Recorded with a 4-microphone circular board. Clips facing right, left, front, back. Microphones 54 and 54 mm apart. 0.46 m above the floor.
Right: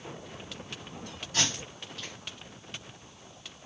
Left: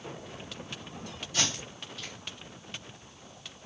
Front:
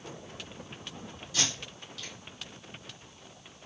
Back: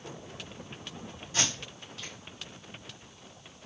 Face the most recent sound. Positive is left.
turn(degrees=-130)